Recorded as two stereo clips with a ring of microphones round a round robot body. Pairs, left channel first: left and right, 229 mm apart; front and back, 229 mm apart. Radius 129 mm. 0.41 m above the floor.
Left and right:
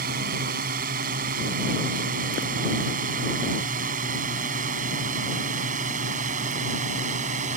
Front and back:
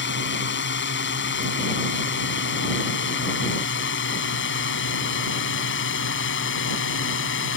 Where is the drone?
35° right; by 7.6 s 30° right.